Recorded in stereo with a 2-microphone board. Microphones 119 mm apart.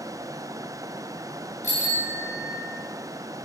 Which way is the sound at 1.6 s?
90° left.